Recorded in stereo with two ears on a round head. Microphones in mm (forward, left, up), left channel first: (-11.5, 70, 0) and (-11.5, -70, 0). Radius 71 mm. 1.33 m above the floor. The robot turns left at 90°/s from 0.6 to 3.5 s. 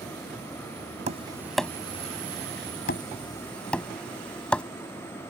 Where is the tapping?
45° right (ahead or behind); by 4.6 s 5° left (ahead or behind).